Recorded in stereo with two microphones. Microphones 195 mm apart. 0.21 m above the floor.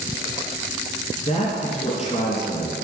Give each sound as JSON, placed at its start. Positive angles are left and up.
{"t": 1.2, "sound": "a man speaking", "side_deg": 35, "distance_m": 2.0}